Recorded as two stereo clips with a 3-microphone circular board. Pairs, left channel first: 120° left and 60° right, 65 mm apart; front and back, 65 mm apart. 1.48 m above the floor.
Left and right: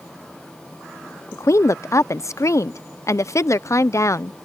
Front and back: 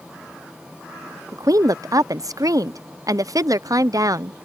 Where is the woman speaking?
155° left.